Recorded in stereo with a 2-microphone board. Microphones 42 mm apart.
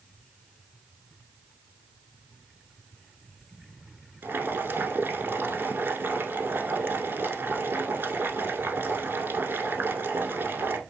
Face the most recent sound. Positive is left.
turn(degrees=-60)  # may be behind; listen again after turning